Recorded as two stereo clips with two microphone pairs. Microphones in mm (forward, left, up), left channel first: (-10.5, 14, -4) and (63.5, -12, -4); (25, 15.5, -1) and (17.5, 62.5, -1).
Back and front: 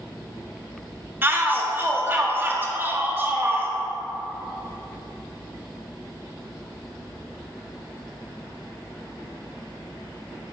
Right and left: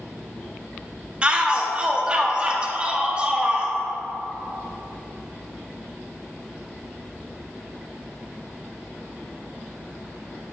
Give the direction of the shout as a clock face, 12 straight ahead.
11 o'clock.